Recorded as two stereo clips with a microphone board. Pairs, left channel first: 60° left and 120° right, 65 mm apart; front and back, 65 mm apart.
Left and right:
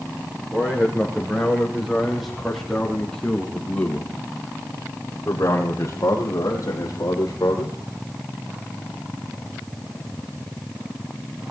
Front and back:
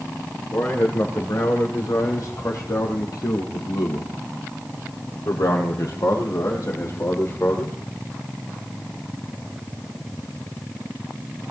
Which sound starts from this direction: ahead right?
A man speaking, at 0.5 s.